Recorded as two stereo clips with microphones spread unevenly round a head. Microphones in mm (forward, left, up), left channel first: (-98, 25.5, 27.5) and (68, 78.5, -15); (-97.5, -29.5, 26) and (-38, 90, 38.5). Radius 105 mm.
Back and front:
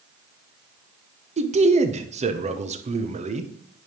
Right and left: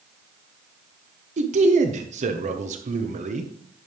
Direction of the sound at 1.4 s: 75° left.